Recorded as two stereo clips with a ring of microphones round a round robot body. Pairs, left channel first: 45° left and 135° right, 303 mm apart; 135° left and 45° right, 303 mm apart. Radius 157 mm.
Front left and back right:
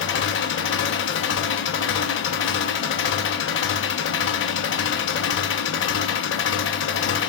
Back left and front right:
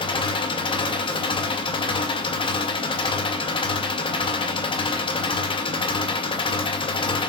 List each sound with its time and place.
0.0 s an engine running: 70° left, 0.8 m